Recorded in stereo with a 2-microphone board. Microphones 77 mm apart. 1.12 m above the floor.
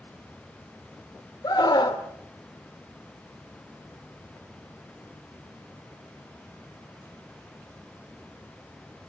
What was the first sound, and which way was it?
A scream, 60° left (ahead or behind).